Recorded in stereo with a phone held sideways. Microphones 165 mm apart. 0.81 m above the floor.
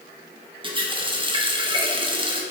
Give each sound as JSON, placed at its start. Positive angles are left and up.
{"t": 0.6, "sound": "a running tap", "side_deg": -30, "distance_m": 0.6}